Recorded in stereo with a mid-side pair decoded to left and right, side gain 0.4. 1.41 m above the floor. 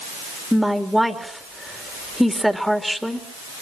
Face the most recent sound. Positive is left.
turn(degrees=0)